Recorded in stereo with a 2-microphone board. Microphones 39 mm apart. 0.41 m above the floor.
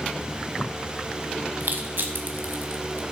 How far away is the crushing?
About 1.0 m.